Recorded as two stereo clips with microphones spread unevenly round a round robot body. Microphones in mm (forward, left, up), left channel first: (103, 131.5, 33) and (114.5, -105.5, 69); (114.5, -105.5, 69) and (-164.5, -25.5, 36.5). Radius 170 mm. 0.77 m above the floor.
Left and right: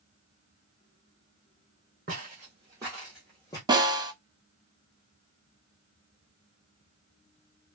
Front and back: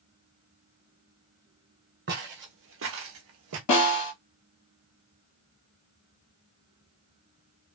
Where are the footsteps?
140° right, 1.4 m; by 3.6 s 175° left, 0.9 m.